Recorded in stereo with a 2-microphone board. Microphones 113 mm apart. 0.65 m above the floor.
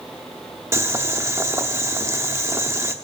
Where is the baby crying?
I don't hear a baby crying.